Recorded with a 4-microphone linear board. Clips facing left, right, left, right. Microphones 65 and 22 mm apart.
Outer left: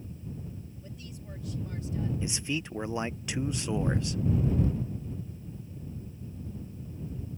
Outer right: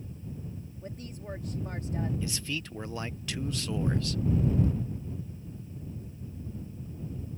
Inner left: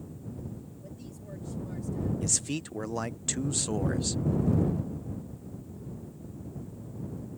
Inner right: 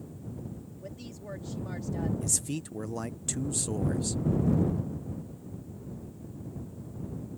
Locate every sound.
0.8 s a woman speaking: 45° right (ahead or behind)
2.2 s a man speaking: 20° left (ahead or behind)